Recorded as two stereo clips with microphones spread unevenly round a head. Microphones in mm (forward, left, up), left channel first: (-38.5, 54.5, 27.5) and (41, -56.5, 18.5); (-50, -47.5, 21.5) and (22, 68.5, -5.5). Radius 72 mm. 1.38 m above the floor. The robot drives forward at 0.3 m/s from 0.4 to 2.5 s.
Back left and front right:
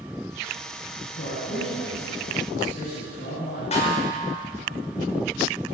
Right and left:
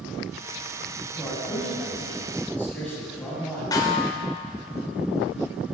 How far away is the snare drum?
About 5.5 m.